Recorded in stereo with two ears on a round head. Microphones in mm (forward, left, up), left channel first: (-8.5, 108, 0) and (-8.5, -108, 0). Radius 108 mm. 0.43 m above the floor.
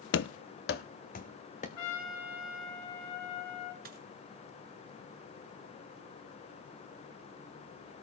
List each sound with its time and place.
0.1 s running footsteps: 50° left (ahead or behind), 0.6 m; by 1.7 s 30° left (ahead or behind), 1.5 m
1.8 s a trumpet: 80° left, 2.5 m
3.9 s a dropped coin: 40° right (ahead or behind), 2.0 m